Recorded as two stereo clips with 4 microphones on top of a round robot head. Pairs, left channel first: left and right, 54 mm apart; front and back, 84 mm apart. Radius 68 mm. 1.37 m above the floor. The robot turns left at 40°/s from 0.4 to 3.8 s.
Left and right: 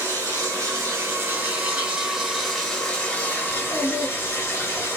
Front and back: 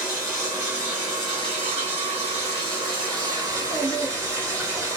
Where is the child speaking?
145° left, 1.7 m; by 4.9 s 130° left, 1.7 m.